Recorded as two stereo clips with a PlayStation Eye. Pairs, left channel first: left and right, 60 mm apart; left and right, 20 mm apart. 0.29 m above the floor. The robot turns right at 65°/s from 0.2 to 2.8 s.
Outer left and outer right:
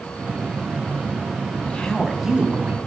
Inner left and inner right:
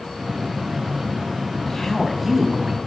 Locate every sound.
1.7 s a woman speaking: 150° left, 2.5 m; by 2.8 s 135° right, 2.5 m